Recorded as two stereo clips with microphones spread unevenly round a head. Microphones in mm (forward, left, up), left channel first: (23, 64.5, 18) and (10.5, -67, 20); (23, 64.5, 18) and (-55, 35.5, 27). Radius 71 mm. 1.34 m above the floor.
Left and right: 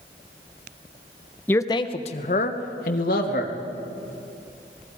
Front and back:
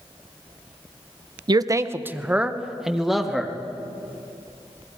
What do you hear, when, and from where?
1.5 s a man speaking: 165° left, 0.7 m; by 3.5 s 110° left, 2.5 m